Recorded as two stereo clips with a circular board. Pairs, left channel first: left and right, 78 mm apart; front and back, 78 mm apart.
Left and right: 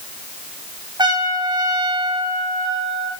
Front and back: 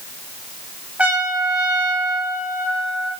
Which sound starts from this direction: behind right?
A trumpet, at 1.0 s.